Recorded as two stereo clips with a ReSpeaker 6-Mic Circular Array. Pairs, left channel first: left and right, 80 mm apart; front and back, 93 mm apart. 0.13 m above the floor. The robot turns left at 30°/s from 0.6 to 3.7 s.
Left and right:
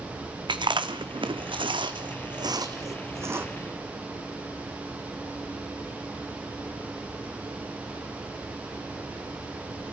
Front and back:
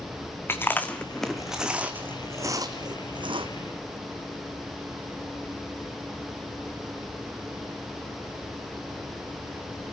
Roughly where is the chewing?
Ahead right.